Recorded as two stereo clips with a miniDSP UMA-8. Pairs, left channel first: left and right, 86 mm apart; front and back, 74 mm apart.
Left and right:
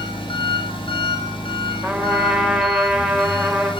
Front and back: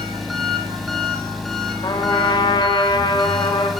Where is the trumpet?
5° right, 6.5 m.